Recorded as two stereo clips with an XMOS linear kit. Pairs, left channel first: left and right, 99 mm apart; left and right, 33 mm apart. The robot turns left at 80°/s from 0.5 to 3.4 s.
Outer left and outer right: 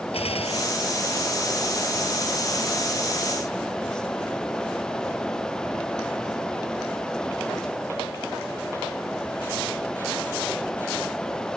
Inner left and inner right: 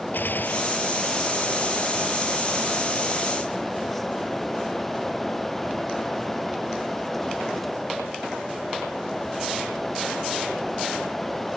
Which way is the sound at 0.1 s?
85° left.